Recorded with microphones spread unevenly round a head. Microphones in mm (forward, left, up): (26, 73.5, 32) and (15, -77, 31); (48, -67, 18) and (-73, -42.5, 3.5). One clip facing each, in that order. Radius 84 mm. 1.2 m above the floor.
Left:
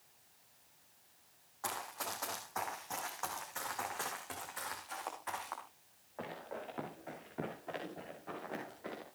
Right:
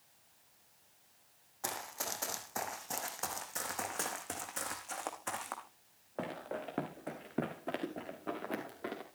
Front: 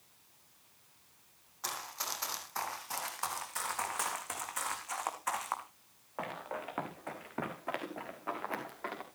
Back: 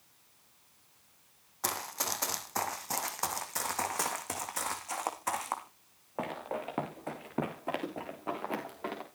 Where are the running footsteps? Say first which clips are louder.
Even, back 5 dB; 165° right, 3 m; by 9.1 s 125° right, 6 m.